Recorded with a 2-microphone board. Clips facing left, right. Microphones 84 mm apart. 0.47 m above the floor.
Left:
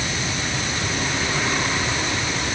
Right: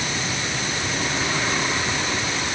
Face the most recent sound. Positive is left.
No sound to turn to.